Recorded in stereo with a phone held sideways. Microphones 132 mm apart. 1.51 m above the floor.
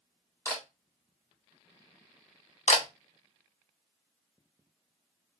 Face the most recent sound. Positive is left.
turn(degrees=60)  # may be behind; listen again after turning